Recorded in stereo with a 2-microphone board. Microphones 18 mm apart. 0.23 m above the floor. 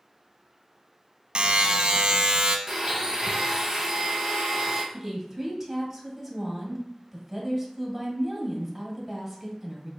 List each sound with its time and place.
1.4 s a buzzer: 50° right (ahead or behind), 0.5 m
2.7 s a blender: 25° right (ahead or behind), 0.8 m
4.9 s a woman speaking: 5° right (ahead or behind), 1.0 m